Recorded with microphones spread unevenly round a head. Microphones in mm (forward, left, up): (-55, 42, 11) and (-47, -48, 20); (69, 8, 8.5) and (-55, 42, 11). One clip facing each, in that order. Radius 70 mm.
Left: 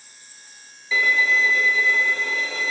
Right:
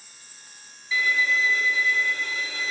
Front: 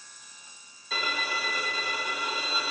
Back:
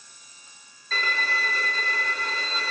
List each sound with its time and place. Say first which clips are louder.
0.9 s a violin: left 4 dB, back 3 dB; 65° left, 1.8 m